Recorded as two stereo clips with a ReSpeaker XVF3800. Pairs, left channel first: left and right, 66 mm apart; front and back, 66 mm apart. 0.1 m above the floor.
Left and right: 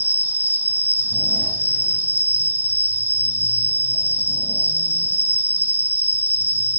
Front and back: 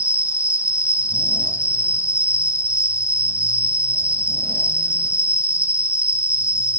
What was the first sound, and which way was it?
An insect, 35° right.